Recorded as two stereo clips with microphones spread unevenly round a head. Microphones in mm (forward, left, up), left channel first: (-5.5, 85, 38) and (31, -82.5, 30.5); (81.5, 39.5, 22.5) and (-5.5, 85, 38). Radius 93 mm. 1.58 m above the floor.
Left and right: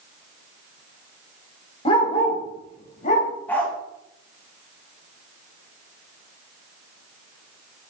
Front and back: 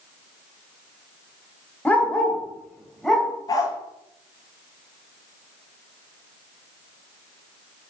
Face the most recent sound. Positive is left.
turn(degrees=25)